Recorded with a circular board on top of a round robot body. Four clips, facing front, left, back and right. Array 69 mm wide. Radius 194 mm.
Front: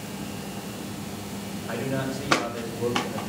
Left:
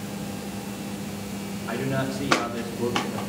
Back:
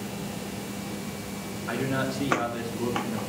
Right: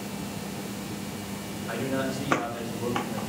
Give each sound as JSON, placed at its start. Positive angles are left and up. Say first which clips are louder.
{"t": 1.7, "sound": "a man speaking", "louder": "left 2 dB, back 1 dB", "azimuth_deg": 150, "distance_m": 2.5}